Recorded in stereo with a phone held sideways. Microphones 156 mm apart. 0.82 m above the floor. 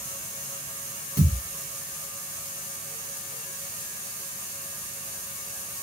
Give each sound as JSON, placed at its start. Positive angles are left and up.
{"t": 1.2, "sound": "a thud", "side_deg": -25, "distance_m": 1.3}